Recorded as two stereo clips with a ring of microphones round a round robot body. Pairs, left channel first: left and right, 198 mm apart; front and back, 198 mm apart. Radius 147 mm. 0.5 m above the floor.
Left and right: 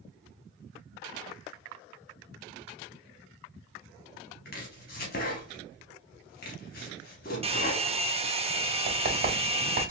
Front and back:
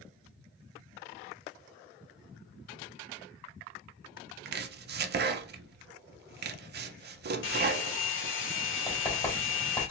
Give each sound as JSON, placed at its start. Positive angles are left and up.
{"t": 4.5, "sound": "chopping", "azimuth_deg": 150, "distance_m": 0.5}
{"t": 7.4, "sound": "a hair dryer", "azimuth_deg": -30, "distance_m": 0.9}
{"t": 8.9, "sound": "writing", "azimuth_deg": -60, "distance_m": 1.9}